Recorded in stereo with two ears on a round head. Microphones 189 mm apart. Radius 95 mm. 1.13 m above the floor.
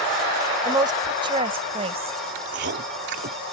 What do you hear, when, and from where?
0.6 s a woman speaking: 20° right (ahead or behind); by 2.2 s 30° right (ahead or behind)
2.4 s chewing: 55° right (ahead or behind)